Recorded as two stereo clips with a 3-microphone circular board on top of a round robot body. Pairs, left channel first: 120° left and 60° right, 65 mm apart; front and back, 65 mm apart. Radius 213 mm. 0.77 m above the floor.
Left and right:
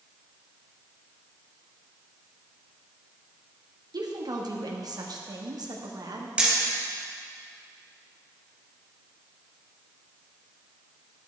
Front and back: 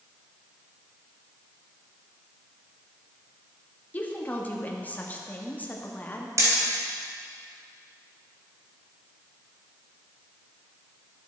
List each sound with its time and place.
3.9 s a woman speaking: 65° right, 2 m
6.4 s hammering: 135° right, 3.5 m